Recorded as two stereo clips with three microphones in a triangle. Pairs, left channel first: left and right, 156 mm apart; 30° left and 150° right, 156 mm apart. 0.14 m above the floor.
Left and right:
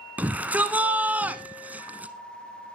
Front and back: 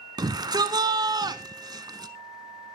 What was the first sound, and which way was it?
A shout, 155° right.